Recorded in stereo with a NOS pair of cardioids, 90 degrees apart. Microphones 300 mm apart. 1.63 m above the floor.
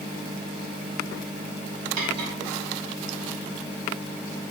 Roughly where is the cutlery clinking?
Ahead right.